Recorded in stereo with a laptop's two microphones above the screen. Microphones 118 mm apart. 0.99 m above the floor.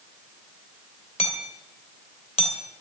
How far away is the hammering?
About 2.5 m.